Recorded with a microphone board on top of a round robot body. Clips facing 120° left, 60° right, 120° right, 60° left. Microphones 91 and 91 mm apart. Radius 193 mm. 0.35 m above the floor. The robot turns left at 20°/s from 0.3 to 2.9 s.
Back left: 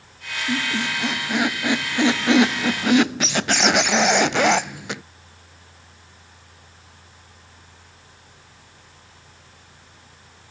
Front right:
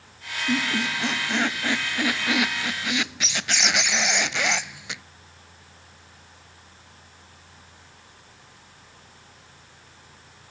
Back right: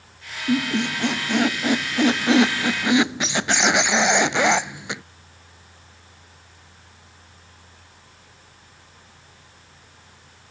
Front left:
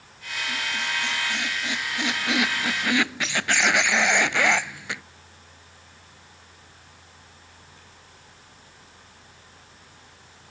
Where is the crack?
I don't hear a crack.